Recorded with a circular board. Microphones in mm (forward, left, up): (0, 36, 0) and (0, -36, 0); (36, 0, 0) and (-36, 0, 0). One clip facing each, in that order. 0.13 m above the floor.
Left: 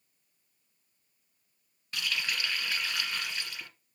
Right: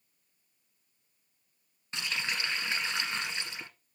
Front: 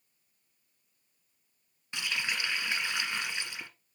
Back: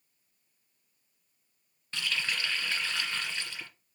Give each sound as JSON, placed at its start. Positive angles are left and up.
{"t": 1.9, "sound": "a running tap", "azimuth_deg": -55, "distance_m": 0.9}